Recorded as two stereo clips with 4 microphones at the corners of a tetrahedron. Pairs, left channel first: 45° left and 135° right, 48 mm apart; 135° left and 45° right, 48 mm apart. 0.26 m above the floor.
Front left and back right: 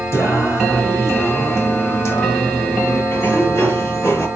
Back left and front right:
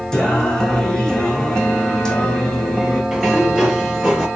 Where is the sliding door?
40° left, 5 m.